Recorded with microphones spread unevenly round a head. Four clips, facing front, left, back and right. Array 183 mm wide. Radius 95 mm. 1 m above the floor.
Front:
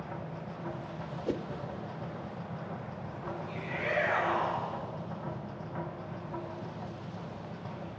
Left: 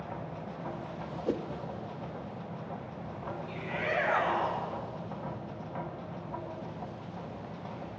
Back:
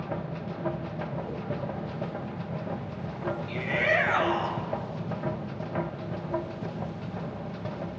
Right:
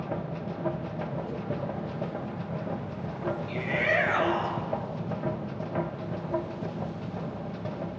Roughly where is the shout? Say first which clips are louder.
Right 4 dB, back 7 dB; behind.